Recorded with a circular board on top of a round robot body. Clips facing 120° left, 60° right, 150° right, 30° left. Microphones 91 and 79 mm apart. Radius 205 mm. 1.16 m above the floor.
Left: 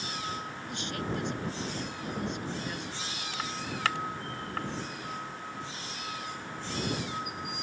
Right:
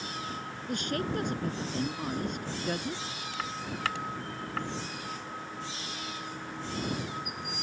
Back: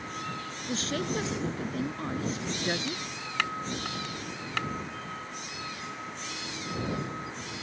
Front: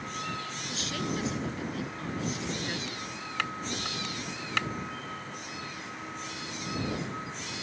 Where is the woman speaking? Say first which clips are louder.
Right 4 dB, back 4 dB; 100° right.